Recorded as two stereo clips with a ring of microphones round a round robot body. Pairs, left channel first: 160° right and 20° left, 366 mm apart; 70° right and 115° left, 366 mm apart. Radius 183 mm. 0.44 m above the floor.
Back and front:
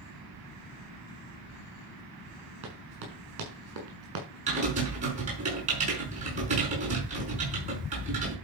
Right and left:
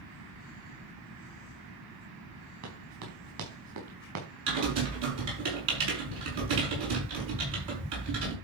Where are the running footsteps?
65° left, 5.5 m.